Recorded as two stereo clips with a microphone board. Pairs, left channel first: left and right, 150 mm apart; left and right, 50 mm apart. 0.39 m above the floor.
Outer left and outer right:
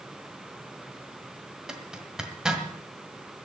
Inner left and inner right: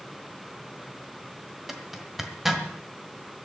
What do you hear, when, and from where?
1.7 s a zipper: 5° right (ahead or behind), 1.6 m